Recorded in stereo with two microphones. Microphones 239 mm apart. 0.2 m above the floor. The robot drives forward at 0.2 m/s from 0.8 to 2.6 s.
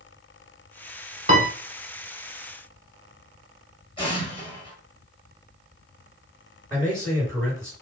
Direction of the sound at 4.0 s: 20° left (ahead or behind).